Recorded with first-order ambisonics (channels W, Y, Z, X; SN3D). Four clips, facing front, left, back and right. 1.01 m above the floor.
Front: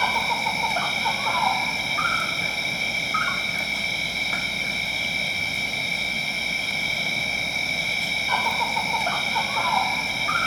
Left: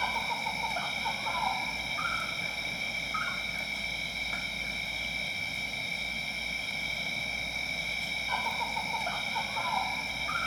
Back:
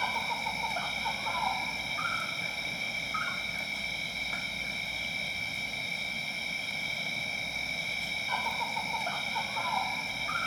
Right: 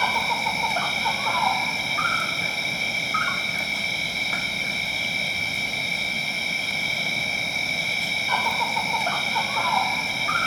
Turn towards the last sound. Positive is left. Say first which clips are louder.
# right 9 dB, front 9 dB
turn(degrees=-45)